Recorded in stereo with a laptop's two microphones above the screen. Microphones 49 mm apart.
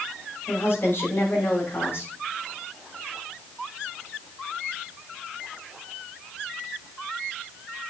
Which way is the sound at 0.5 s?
55° left (ahead or behind).